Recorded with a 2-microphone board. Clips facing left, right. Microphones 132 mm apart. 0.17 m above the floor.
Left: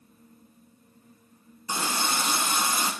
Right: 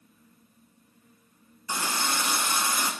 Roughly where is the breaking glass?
I don't hear breaking glass.